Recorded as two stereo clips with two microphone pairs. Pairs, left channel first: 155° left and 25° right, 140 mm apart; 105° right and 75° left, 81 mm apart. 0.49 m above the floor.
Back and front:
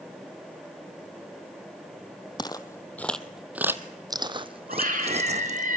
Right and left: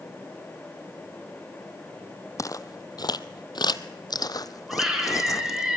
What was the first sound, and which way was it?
Footsteps, 150° right.